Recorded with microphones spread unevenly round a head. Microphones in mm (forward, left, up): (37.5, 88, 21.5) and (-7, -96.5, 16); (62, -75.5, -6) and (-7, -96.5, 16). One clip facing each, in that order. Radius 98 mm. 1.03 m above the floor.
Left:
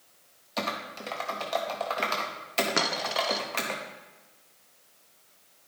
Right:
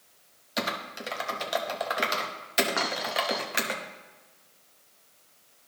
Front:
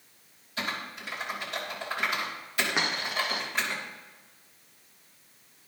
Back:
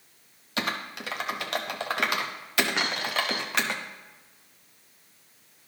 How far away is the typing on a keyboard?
About 0.7 m.